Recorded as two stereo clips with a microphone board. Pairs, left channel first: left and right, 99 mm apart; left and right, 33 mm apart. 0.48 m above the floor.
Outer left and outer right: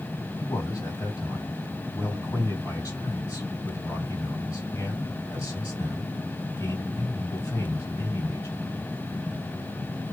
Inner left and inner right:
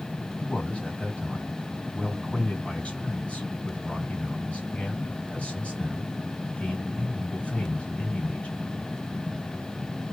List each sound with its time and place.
0.4 s a man speaking: 35° left (ahead or behind), 2.5 m